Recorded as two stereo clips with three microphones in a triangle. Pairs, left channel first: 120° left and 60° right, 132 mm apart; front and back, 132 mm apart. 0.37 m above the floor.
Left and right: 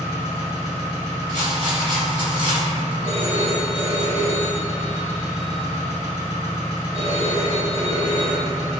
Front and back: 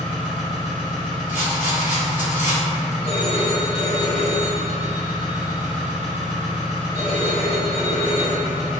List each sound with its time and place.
0.0 s an engine running: 95° right, 1.3 m
1.3 s a rattle: 105° right, 1.2 m
3.0 s a phone ringing: 30° right, 1.1 m